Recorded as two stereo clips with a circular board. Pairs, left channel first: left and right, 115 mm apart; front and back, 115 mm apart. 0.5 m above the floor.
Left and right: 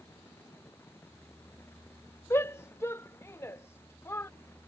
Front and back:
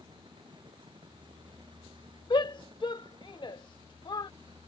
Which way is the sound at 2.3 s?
30° left.